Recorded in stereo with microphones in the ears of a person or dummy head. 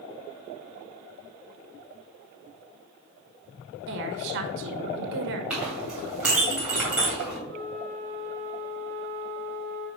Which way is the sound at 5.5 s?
10° right (ahead or behind).